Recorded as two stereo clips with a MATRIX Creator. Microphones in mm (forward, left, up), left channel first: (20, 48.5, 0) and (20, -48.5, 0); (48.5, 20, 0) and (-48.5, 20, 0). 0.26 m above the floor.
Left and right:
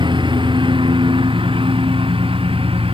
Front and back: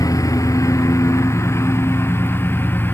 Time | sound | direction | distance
0.0 | a lawn mower | 55° right | ?